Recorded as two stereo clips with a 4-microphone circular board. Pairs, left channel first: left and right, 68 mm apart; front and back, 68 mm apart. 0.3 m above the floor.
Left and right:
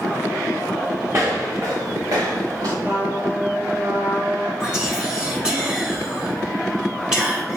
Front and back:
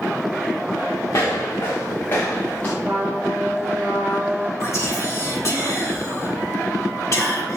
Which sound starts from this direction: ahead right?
Footsteps, at 1.1 s.